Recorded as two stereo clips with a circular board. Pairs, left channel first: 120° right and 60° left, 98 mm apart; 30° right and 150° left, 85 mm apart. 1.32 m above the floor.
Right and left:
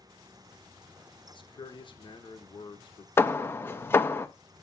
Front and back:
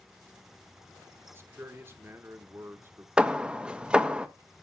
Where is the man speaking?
150° right, 1.1 m.